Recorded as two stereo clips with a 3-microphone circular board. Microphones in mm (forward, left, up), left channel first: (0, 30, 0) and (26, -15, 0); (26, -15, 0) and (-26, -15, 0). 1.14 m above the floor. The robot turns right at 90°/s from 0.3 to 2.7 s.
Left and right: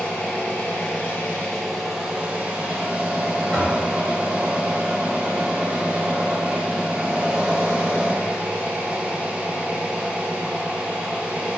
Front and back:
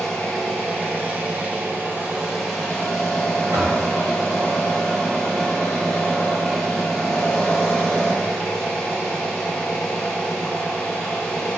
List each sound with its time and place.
0.0 s an engine running: 75° left, 0.8 m; by 11.6 s 65° right, 0.8 m
3.5 s knocking: 165° right, 0.9 m